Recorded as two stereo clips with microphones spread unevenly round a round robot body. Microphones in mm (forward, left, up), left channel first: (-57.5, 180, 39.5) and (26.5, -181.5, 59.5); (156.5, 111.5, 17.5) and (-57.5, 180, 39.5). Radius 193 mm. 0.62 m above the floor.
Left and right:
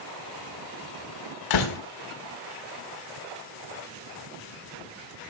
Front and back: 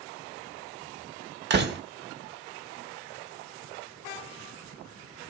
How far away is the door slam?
About 1.9 m.